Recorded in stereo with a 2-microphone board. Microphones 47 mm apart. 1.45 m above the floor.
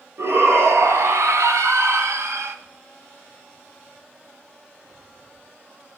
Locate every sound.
0.2 s a shout: 70° right (ahead or behind), 2.0 m; by 2.5 s 65° right (ahead or behind), 1.4 m